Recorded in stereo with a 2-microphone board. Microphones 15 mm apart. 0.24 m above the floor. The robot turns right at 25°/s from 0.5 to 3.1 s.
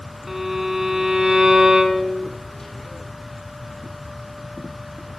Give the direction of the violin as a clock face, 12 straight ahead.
5 o'clock.